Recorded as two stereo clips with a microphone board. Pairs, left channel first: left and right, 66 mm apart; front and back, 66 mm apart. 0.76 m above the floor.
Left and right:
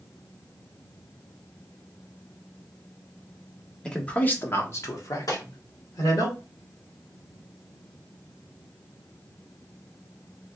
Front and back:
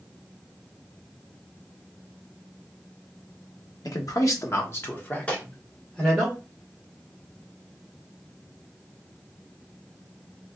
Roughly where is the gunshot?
Left.